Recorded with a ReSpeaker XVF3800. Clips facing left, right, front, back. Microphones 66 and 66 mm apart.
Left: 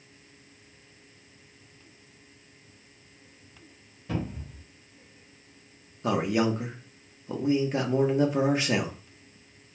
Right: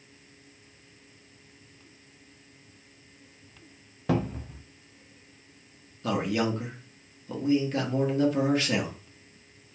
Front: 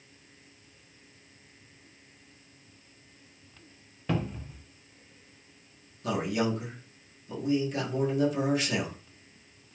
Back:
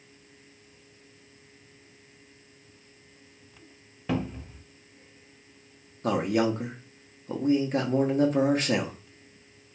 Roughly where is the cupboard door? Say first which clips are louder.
Right 5 dB, back 2 dB; right.